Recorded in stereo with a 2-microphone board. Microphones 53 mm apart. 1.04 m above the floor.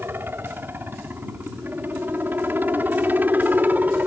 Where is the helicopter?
45° right (ahead or behind); by 4.1 s 35° right (ahead or behind).